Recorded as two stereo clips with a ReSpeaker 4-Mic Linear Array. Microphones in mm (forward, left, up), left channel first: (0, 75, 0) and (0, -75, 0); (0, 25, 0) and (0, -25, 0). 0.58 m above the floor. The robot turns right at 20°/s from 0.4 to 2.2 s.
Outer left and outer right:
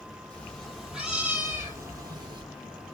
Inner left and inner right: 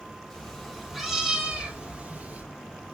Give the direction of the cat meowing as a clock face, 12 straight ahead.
6 o'clock.